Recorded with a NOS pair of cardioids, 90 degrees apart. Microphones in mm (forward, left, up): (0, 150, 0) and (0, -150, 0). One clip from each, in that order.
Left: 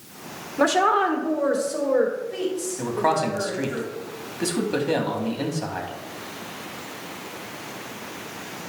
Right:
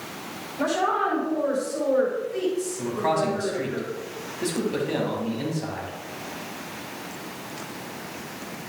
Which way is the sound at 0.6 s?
65° left.